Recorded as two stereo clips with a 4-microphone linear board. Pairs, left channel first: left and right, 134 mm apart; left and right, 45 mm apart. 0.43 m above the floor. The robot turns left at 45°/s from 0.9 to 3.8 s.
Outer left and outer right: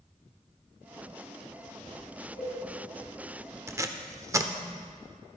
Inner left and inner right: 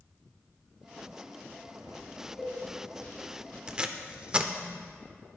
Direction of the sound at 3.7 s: 20° right (ahead or behind).